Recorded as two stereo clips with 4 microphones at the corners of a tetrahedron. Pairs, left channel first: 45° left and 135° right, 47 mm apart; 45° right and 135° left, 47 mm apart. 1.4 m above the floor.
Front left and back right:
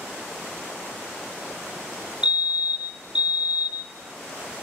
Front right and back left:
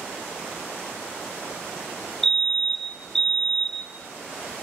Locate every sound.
2.2 s a fire alarm: 115° right, 0.8 m